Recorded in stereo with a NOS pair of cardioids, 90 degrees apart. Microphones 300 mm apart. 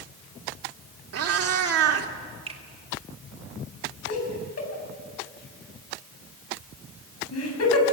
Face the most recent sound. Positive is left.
turn(degrees=55)